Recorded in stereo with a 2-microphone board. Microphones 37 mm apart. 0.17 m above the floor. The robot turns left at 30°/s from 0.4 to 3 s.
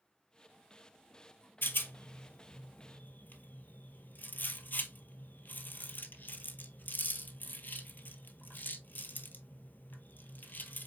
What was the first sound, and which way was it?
A rattle, 75° left (ahead or behind).